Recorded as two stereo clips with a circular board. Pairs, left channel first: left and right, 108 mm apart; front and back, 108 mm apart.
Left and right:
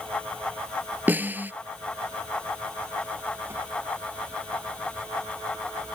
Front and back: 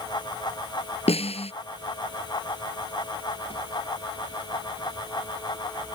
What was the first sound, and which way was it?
A snare drum, 15° right.